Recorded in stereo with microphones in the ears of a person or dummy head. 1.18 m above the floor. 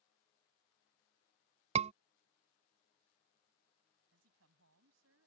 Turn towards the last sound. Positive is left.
turn(degrees=-70)  # may be behind; listen again after turning